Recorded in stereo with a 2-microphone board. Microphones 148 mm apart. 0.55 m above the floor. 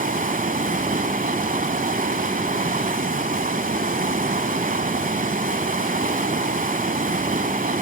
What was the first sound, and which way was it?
Running water, 70° right (ahead or behind).